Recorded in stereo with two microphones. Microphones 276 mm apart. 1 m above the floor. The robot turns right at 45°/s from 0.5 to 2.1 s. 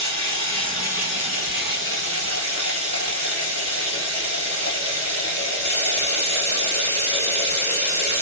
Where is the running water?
165° left, 2.5 m; by 8.2 s 120° right, 2.5 m.